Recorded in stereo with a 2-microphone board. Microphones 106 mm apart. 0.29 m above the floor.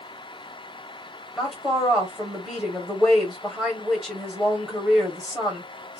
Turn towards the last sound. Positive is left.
turn(degrees=-5)  # may be behind; listen again after turning